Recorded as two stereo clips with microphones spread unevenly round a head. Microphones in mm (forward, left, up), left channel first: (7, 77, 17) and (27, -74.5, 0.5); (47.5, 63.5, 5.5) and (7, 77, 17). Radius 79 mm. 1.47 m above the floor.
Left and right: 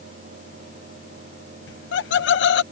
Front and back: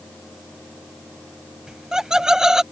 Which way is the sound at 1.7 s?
85° left.